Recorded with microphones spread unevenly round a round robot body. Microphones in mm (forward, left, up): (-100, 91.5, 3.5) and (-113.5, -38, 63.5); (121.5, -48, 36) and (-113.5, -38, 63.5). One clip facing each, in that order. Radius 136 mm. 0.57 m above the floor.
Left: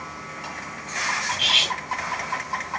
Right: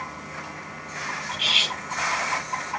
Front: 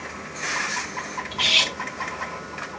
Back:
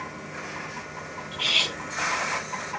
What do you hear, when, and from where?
1.3 s cutlery clinking: 35° left, 2 m